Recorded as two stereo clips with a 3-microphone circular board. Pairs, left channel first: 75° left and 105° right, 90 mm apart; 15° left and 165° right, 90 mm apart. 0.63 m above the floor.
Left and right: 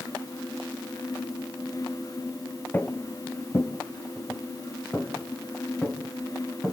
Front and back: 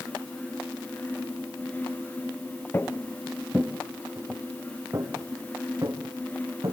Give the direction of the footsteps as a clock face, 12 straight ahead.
11 o'clock.